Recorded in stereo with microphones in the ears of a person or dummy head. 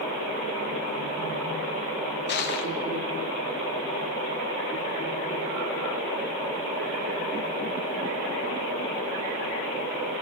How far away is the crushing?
About 0.7 m.